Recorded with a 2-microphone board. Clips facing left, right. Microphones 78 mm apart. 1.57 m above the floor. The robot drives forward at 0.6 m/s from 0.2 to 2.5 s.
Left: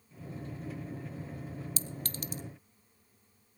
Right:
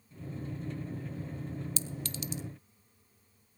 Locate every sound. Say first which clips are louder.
1.8 s a clink: right 1 dB; 40° left (ahead or behind), 0.8 m; by 2.4 s 45° left (ahead or behind), 0.8 m